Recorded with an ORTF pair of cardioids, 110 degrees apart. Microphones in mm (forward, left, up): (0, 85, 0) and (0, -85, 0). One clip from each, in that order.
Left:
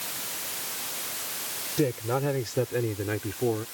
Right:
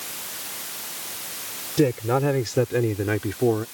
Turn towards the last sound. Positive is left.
turn(degrees=-35)